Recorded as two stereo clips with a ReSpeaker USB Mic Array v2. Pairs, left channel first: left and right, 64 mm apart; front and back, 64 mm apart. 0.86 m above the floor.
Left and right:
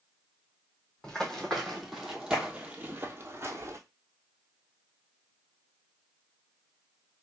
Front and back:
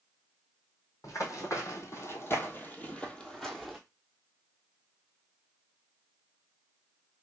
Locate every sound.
1.0 s running footsteps: 10° left, 1.5 m; by 3.8 s 95° right, 1.1 m